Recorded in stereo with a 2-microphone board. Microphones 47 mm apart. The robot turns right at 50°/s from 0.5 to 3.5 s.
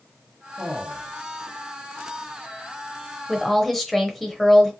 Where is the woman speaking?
10° left (ahead or behind), 0.9 m; by 4.7 s 5° left (ahead or behind), 0.9 m.